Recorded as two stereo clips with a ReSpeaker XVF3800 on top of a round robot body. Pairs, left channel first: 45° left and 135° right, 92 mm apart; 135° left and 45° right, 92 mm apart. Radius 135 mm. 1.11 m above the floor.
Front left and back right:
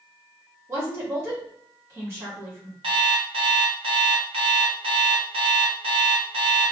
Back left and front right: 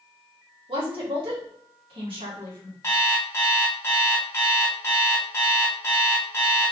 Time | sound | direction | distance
0.7 | a woman speaking | 75° right | 1.6 m
2.8 | an alarm clock | 160° right | 0.7 m